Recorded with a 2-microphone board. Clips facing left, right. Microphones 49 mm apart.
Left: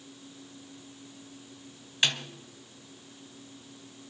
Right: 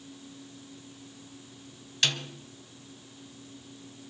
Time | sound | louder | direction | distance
2.0 | a snare drum | left 1 dB | 20° left (ahead or behind) | 1.2 m